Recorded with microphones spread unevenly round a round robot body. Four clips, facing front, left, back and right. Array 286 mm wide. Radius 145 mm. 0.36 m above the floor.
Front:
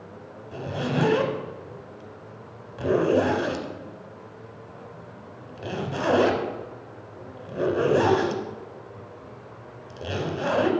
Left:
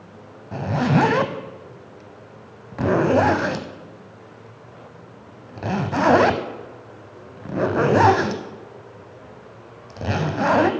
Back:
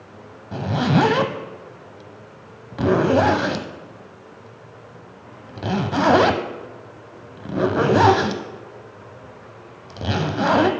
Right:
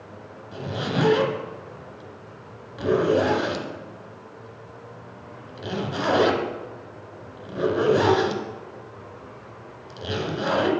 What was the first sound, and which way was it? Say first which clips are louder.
A zipper: left 7 dB, back 8 dB; 140° left.